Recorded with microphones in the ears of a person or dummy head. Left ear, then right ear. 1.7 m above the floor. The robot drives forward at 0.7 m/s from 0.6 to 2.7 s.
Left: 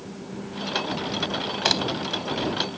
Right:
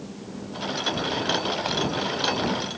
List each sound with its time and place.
1.6 s a crack: 30° left (ahead or behind)